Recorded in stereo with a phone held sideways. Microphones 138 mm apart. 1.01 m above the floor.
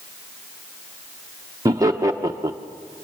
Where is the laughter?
25° right (ahead or behind), 0.8 m.